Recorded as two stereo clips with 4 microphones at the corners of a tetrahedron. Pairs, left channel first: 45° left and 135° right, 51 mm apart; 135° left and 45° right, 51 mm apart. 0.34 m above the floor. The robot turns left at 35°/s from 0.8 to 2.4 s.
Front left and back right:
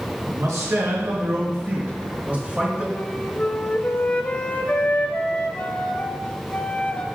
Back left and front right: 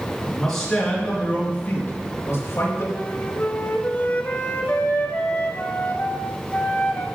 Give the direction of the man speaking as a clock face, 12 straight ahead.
5 o'clock.